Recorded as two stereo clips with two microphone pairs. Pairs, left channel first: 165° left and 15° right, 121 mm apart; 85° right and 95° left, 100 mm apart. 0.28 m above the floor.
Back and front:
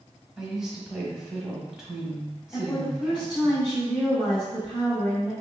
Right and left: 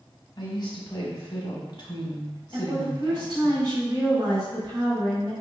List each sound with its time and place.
0.4 s a woman speaking: 100° right, 1.3 m
2.5 s a woman speaking: 95° left, 1.4 m